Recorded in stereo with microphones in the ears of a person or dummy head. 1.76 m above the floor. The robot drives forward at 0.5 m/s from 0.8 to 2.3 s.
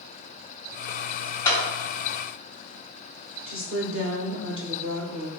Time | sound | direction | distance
1.4 | a clap | 20° left (ahead or behind) | 0.7 m
3.5 | a woman speaking | 60° right (ahead or behind) | 0.7 m